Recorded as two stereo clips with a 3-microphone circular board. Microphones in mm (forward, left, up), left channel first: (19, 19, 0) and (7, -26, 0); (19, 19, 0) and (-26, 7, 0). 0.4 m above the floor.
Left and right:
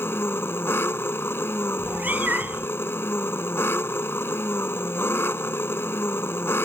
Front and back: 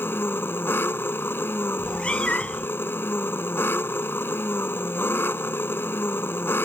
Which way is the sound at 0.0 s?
50° left.